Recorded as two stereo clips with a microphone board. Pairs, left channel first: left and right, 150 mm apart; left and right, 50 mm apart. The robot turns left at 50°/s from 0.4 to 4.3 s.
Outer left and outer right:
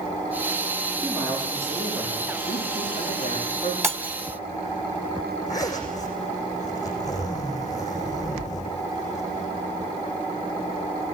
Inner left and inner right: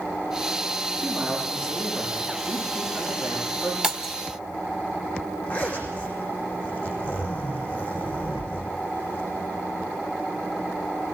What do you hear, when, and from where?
1.0 s a man speaking: 170° left, 9.5 m; by 3.7 s 35° left, 9.5 m
3.8 s breaking glass: 20° right (ahead or behind), 1.5 m; by 4.1 s 5° right (ahead or behind), 1.5 m
5.5 s a zipper: 25° left (ahead or behind), 6 m